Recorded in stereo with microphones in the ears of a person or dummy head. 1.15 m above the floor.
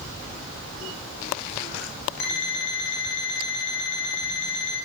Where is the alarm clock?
70° left (ahead or behind), 2 m.